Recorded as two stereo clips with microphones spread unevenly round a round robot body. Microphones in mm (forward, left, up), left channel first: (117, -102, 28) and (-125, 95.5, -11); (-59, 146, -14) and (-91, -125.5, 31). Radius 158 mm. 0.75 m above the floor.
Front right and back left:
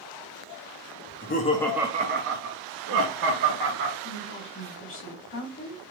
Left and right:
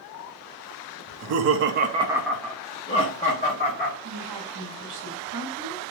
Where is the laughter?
90° right, 0.6 m; by 3.9 s 140° left, 1.4 m.